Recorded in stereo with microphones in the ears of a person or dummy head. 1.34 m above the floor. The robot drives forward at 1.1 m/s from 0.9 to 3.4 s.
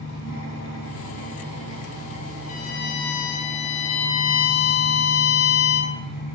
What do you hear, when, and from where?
0.0 s an engine running: 75° left (ahead or behind), 3 m; by 6.3 s 45° left (ahead or behind), 4 m
2.5 s a violin: 45° left (ahead or behind), 1.2 m; by 6.0 s 80° left, 0.9 m